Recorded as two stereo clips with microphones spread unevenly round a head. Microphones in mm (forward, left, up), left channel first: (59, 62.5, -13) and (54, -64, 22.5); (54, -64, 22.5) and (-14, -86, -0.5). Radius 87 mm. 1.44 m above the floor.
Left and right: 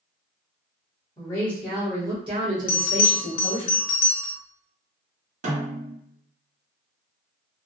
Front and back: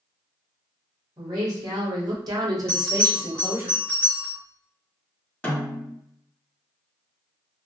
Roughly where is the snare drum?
Ahead right.